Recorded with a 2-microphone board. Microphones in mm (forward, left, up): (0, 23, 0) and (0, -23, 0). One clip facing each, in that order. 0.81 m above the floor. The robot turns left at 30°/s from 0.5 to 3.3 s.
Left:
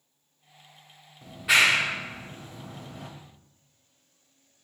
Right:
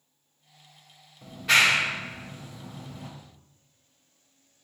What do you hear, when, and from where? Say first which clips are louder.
1.2 s a clap: even; centre (ahead or behind), 1.6 m; by 3.1 s 55° left (ahead or behind), 1.6 m